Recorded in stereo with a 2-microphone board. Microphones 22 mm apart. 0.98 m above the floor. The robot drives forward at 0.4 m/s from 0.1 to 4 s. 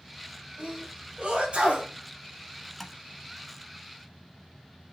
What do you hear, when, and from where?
0.6 s a sneeze: 65° right (ahead or behind), 5.5 m; by 1.9 s 70° right (ahead or behind), 5.5 m
2.8 s tapping: 5° left (ahead or behind), 1.0 m